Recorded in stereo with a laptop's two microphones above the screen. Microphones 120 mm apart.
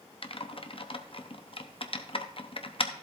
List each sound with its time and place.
0.2 s typing on a keyboard: 50° left (ahead or behind), 0.7 m